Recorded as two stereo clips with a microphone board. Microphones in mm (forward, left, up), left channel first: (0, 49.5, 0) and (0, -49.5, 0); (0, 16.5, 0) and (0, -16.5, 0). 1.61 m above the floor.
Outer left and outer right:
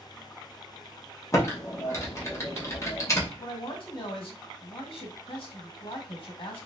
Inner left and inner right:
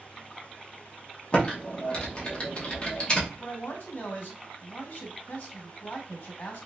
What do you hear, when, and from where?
1.3 s typing on a keyboard: 30° left (ahead or behind), 1.2 m
3.4 s a man speaking: 60° left (ahead or behind), 1.7 m